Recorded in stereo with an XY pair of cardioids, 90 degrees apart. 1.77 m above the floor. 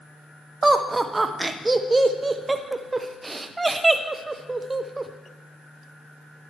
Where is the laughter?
25° right, 0.9 m.